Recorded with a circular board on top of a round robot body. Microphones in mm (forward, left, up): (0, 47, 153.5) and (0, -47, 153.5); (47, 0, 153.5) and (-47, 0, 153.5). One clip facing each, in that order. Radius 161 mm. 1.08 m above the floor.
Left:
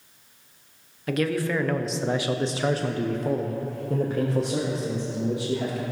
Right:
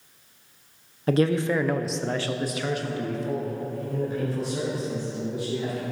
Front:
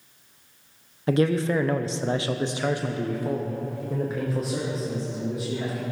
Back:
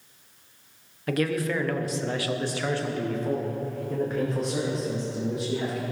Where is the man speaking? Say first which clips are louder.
Right 3 dB, front 4 dB; 55° right, 0.9 m; by 5.8 s 90° left, 2 m.